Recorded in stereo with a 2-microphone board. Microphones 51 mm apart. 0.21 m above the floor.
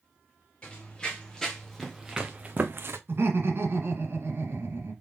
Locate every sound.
0.6 s running footsteps: 25° left (ahead or behind), 2.0 m; by 3.0 s 55° right (ahead or behind), 0.8 m
3.1 s laughter: 50° right (ahead or behind), 2.0 m